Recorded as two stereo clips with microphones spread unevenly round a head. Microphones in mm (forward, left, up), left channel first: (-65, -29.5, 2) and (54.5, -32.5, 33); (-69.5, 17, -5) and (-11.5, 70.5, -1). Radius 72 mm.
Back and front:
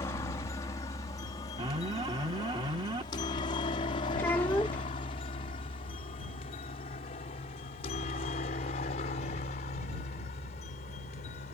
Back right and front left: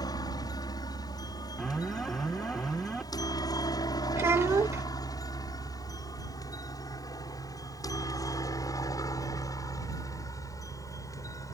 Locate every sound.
0.0 s a helicopter: 135° right; by 11.5 s straight behind
1.6 s an alarm: 50° right
4.2 s a child speaking: 100° left